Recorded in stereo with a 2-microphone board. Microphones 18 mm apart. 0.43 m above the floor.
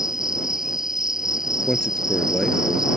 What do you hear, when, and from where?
0.0 s an insect: 30° right (ahead or behind)
1.7 s a man speaking: 40° left (ahead or behind)